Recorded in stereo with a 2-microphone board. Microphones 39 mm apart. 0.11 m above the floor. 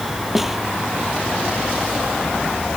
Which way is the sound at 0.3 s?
5° right (ahead or behind).